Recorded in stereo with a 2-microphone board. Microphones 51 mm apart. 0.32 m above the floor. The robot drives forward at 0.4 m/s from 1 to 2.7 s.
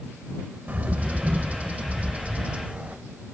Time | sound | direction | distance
0.7 | a bird | 35° right (ahead or behind) | 0.7 m